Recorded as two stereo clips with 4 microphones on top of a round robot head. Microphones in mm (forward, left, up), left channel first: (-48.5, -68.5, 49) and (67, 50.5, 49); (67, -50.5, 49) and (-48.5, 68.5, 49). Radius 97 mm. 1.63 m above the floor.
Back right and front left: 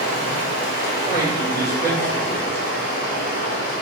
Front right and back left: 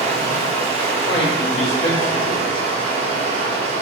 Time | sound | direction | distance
0.0 | running water | 170° right | 0.9 m
1.1 | a man speaking | 60° right | 1.9 m